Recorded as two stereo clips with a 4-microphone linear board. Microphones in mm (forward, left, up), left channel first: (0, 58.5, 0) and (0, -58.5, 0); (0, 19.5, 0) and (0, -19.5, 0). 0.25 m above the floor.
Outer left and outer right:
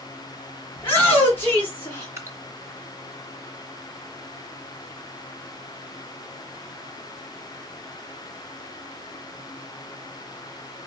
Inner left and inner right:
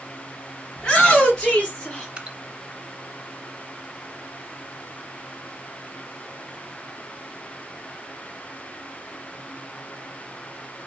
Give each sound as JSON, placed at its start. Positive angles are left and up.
{"t": 0.8, "sound": "a shout", "side_deg": 20, "distance_m": 1.9}
{"t": 2.2, "sound": "dripping", "side_deg": -25, "distance_m": 1.2}